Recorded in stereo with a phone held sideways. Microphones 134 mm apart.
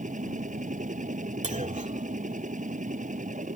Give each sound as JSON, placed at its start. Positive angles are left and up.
{"t": 0.0, "sound": "a machine running", "side_deg": -70}
{"t": 1.4, "sound": "a clunk", "side_deg": -65}